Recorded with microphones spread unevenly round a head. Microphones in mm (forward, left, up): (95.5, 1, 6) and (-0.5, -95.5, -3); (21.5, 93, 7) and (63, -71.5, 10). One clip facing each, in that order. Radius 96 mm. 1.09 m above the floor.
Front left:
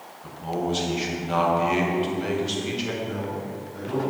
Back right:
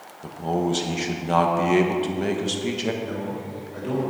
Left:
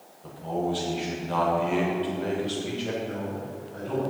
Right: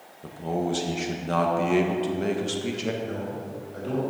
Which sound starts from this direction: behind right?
A man speaking, at 3.0 s.